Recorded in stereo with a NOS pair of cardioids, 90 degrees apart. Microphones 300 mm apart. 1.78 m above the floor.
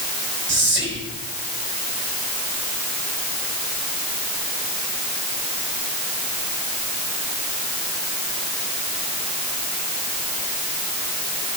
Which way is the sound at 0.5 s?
40° right.